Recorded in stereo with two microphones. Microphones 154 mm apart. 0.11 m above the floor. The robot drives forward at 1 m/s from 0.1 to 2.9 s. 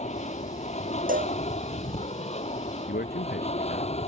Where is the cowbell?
60° right (ahead or behind); by 1.4 s 65° right (ahead or behind).